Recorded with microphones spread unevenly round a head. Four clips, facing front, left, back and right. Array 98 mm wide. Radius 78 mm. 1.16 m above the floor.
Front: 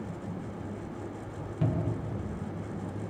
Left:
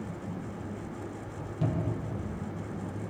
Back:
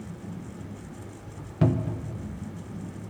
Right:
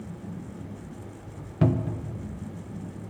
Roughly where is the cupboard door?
Behind right.